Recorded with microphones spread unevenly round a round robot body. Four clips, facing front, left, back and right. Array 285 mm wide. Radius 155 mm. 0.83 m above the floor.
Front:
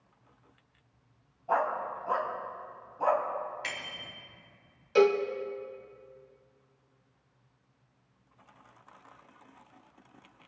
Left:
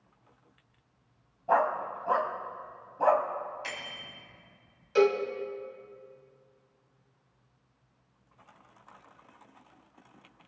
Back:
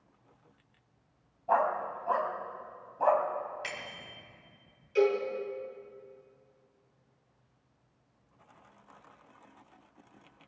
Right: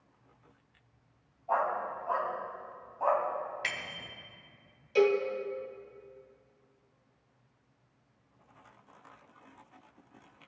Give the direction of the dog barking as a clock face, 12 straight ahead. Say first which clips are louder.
Left 4 dB, back 1 dB; 9 o'clock.